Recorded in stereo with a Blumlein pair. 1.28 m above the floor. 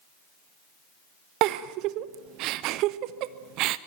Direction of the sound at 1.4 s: 40° right.